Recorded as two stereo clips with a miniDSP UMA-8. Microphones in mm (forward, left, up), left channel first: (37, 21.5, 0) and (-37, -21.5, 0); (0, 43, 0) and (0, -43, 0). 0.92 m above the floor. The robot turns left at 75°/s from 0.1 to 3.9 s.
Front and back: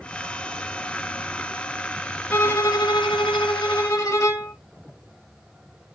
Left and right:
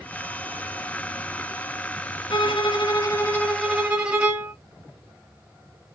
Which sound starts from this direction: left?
A violin, at 2.3 s.